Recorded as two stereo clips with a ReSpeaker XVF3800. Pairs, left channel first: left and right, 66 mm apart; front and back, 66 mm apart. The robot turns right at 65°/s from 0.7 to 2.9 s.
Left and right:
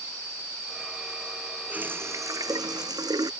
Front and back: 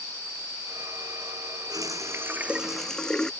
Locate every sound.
1.7 s a running tap: 160° right; by 3.3 s 80° right